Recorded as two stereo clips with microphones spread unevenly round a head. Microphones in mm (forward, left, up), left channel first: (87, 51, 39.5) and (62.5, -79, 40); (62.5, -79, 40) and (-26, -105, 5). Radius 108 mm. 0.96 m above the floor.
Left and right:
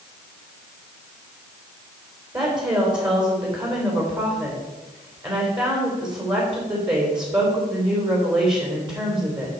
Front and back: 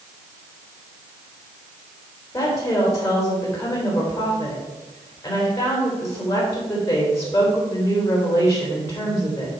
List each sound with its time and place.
2.3 s a woman speaking: 45° right, 4 m